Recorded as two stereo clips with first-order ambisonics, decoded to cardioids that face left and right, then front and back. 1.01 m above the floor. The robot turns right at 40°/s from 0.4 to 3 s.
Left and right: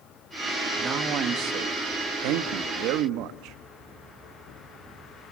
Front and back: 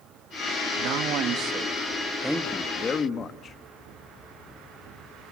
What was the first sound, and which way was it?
A man speaking, 155° right.